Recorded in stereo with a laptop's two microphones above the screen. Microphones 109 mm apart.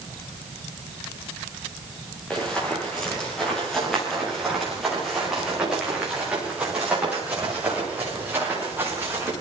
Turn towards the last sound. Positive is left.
turn(degrees=-20)  # may be behind; listen again after turning